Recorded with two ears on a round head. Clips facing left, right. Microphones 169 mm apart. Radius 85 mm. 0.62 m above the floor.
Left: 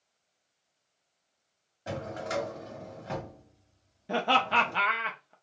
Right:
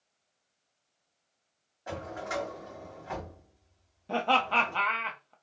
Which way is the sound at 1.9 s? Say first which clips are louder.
Left 2 dB; 40° left (ahead or behind).